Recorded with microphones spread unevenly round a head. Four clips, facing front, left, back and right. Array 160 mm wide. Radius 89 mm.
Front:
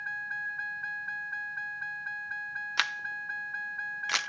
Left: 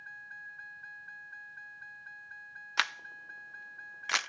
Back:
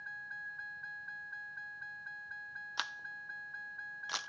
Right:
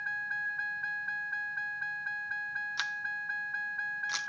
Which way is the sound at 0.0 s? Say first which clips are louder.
Right 12 dB, front 10 dB; 45° right.